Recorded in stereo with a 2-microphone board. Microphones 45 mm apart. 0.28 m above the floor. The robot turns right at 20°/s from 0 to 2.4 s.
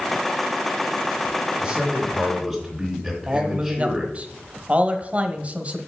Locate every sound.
1.6 s a man speaking: 25° right (ahead or behind), 2.5 m; by 4.1 s 10° right (ahead or behind), 2.5 m
3.3 s a man speaking: 30° right (ahead or behind), 1.1 m